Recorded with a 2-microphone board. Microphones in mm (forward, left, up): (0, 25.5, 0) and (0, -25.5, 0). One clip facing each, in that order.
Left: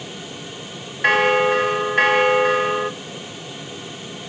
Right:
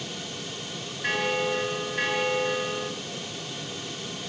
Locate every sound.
1.0 s a bell: 55° left (ahead or behind), 0.9 m